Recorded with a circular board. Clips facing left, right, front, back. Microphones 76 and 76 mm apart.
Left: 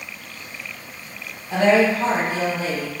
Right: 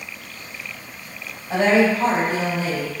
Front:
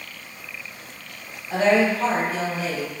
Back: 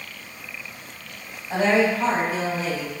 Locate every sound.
1.5 s a woman speaking: 105° right, 1.9 m; by 2.9 s 90° right, 2.5 m